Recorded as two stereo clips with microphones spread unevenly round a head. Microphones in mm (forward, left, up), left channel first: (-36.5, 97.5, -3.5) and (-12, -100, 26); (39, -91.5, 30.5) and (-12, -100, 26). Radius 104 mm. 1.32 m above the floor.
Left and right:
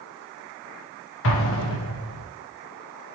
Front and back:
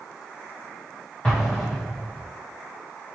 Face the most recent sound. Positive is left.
turn(degrees=90)